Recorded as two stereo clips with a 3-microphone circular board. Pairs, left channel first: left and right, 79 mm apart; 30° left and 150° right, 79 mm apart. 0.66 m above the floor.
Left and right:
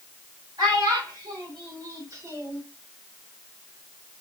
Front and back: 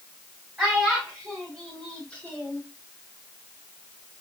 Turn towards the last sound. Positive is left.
turn(degrees=-30)